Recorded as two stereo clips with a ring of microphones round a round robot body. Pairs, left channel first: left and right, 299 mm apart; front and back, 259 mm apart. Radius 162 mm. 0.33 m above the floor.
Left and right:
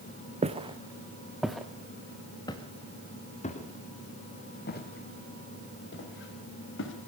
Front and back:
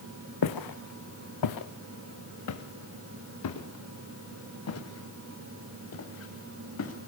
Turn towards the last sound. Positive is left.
turn(degrees=35)